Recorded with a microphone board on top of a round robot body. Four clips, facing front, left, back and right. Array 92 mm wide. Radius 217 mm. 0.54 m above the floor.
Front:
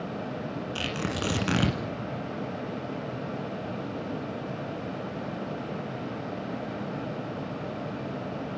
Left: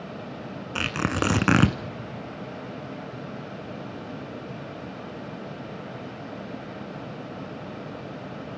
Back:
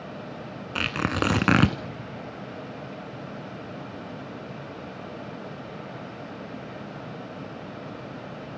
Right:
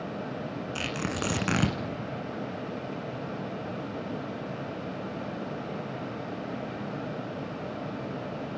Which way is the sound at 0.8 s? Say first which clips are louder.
Left 7 dB, back 7 dB; 145° left.